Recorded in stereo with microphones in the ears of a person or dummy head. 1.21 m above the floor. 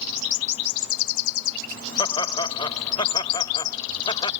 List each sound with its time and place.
2.0 s laughter: 20° left (ahead or behind)